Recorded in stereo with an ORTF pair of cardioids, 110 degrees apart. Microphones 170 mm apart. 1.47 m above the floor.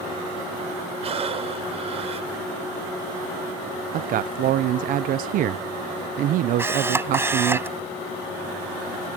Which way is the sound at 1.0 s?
40° right.